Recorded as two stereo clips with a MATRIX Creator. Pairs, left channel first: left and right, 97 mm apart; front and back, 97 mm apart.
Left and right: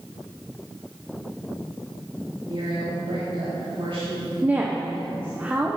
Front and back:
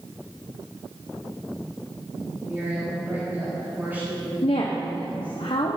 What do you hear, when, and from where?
2.5 s a woman speaking: 110° right, 3.5 m
4.4 s a woman speaking: 20° right, 1.0 m